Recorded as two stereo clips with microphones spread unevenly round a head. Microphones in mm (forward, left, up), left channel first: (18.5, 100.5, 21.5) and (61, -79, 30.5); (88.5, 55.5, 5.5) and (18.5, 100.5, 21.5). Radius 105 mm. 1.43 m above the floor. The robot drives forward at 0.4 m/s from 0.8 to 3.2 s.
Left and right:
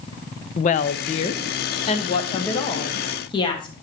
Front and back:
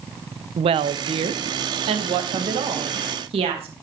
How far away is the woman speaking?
About 0.6 m.